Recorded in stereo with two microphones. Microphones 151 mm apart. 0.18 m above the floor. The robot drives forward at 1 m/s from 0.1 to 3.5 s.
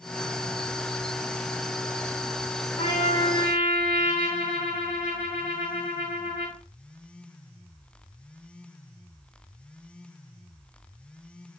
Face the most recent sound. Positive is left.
turn(degrees=35)  # may be behind; listen again after turning